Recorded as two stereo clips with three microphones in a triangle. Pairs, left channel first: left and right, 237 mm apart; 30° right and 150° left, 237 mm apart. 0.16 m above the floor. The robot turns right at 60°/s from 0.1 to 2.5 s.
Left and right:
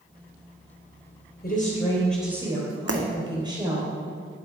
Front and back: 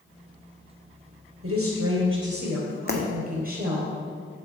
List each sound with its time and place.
1.4 s a woman speaking: 135° left, 3.5 m; by 3.9 s 160° right, 3.5 m
2.9 s breaking glass: 80° right, 1.3 m